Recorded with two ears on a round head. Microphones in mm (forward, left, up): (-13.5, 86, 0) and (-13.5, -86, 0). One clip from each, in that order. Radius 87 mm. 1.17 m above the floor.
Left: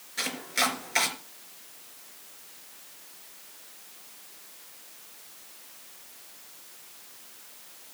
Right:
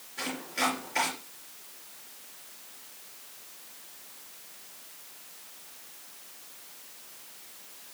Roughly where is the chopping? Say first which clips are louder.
Left 3 dB; left.